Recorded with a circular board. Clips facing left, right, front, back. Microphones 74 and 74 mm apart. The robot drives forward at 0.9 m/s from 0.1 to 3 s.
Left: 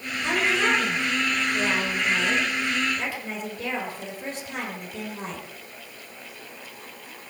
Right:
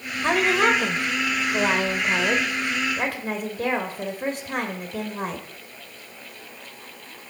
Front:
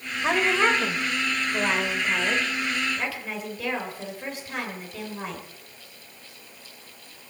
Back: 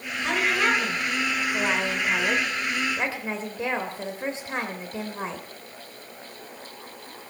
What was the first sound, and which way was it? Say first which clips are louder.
A woman speaking: right 4 dB, front 2 dB; 55° right.